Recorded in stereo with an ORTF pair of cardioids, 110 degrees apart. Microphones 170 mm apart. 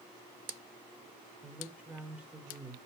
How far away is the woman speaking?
About 3.5 m.